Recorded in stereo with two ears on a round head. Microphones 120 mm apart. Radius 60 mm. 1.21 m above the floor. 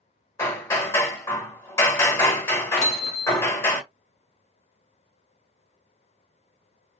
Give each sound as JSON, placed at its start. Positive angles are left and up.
{"t": 0.4, "sound": "hammering", "side_deg": 20, "distance_m": 1.5}
{"t": 2.8, "sound": "hammering", "side_deg": 50, "distance_m": 1.5}